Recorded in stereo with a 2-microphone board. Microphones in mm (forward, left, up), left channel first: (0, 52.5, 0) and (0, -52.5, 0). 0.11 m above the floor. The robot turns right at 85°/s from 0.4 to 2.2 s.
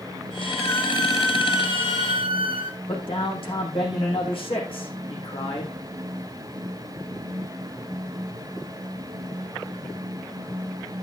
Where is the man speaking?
60° left (ahead or behind), 6.5 m.